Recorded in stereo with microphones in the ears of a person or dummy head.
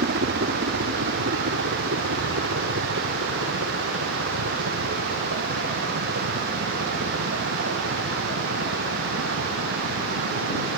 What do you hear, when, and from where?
0.0 s a helicopter: 55° right (ahead or behind); by 10.8 s 80° right